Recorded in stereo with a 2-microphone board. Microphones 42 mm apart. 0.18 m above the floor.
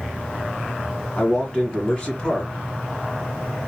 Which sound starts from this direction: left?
A man speaking, at 1.2 s.